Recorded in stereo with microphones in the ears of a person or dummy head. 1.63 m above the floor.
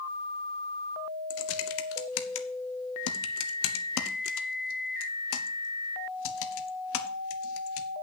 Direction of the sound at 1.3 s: 80° left.